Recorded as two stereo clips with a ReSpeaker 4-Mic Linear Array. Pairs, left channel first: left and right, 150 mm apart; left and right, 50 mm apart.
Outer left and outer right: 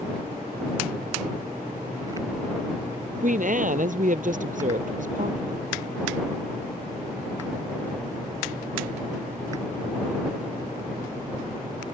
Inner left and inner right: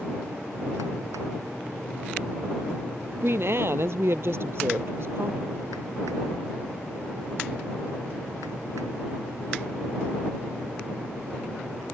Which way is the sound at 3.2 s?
60° right (ahead or behind).